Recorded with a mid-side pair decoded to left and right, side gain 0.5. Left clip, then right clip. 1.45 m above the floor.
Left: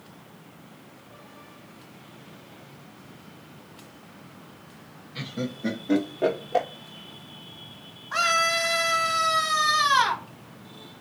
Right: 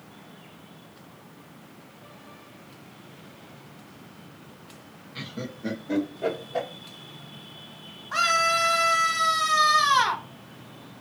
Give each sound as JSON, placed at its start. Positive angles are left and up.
{"t": 5.2, "sound": "laughter", "azimuth_deg": 0, "distance_m": 1.2}
{"t": 8.1, "sound": "a scream", "azimuth_deg": 0, "distance_m": 1.8}